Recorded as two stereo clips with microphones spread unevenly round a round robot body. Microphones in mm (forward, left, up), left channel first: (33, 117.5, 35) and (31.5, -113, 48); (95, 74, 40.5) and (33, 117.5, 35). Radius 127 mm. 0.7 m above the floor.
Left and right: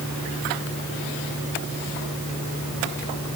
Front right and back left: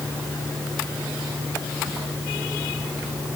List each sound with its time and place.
Only background noise.